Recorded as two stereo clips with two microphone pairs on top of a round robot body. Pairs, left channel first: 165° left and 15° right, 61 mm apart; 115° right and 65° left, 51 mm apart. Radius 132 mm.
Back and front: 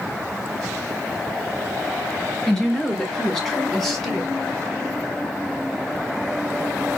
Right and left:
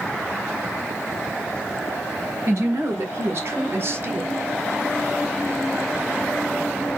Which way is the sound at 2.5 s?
85° left.